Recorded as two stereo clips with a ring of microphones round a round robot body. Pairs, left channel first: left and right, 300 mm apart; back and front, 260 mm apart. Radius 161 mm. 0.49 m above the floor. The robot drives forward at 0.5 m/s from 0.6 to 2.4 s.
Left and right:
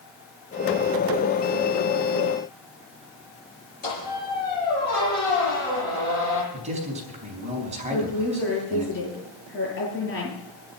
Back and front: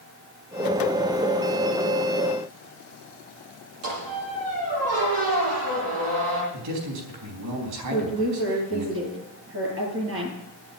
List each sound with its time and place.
3.8 s a squeak: 30° left, 10 m
6.5 s a man speaking: 20° right, 4.5 m
7.9 s a woman speaking: 35° left, 9 m